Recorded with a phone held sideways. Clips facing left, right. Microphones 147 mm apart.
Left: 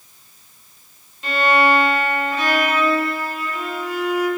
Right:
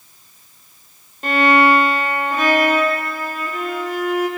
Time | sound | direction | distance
1.2 | a violin | 50° right (ahead or behind) | 0.8 m